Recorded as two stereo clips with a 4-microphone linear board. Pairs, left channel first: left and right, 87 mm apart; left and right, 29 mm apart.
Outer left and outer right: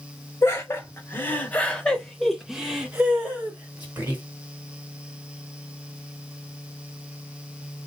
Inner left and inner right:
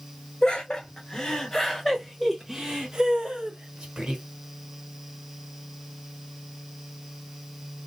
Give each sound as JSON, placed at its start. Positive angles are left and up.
{"t": 0.4, "sound": "laughter", "side_deg": 30, "distance_m": 1.4}